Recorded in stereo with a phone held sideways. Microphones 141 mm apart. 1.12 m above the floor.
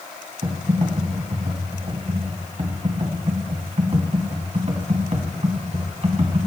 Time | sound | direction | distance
0.4 | typing on a keyboard | 50° right (ahead or behind) | 2.5 m